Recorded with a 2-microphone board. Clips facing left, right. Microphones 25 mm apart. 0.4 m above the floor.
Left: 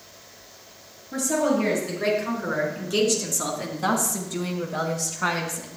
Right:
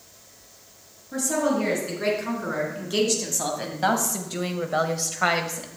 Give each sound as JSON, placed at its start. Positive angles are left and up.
{"t": 1.1, "sound": "a woman speaking", "side_deg": -10, "distance_m": 4.5}